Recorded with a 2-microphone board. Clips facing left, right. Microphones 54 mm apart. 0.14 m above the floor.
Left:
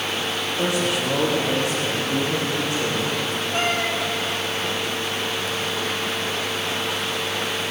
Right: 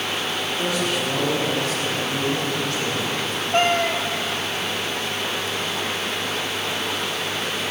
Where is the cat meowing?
45° right (ahead or behind), 1.3 m.